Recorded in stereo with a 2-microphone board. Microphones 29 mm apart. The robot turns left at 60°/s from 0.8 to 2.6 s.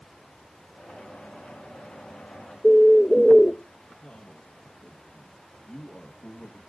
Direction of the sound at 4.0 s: 50° left (ahead or behind).